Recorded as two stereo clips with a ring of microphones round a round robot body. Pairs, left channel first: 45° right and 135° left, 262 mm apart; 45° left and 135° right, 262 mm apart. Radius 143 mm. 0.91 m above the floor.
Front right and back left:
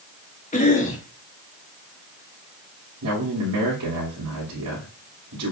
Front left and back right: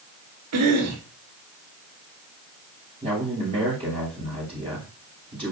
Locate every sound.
0.5 s a cough: 110° right, 2.0 m
3.0 s a man speaking: 155° left, 2.5 m